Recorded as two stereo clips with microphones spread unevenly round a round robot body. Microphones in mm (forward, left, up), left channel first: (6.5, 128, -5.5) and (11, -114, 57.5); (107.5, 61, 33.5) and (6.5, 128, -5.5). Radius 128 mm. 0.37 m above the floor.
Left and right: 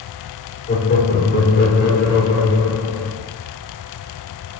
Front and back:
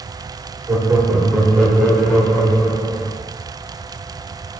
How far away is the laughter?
About 1.0 m.